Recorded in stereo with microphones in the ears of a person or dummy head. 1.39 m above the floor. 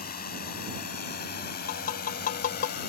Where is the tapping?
45° left (ahead or behind).